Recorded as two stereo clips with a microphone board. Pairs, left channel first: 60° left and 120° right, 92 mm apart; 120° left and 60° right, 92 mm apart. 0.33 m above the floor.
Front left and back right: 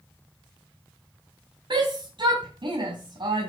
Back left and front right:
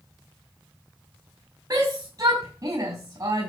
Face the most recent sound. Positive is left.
turn(degrees=-105)